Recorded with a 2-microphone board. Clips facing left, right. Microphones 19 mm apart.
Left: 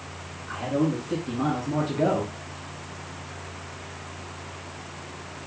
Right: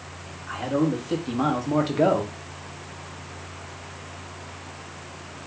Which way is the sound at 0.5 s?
65° right (ahead or behind).